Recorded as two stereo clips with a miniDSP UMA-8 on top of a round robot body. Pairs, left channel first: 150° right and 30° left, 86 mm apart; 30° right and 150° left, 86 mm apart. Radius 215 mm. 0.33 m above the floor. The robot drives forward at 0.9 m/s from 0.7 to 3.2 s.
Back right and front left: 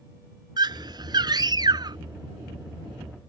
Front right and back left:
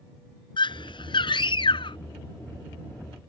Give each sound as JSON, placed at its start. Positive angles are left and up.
{"t": 0.6, "sound": "a scream", "azimuth_deg": -5}